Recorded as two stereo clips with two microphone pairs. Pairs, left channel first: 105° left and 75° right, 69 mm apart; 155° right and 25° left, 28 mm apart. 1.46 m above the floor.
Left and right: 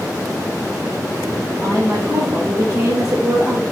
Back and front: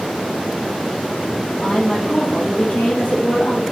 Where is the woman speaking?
120° right, 1.4 m.